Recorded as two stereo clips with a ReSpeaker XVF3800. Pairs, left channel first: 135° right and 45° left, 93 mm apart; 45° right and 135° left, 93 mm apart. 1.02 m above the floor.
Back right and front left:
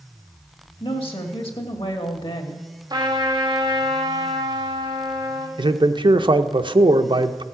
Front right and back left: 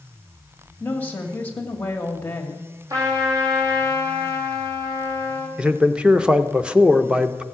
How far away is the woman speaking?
About 1.7 m.